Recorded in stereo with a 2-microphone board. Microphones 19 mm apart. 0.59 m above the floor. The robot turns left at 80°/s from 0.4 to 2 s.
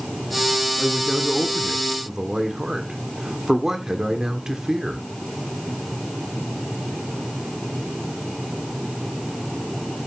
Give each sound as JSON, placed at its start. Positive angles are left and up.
{"t": 0.8, "sound": "a man speaking", "azimuth_deg": 55, "distance_m": 1.6}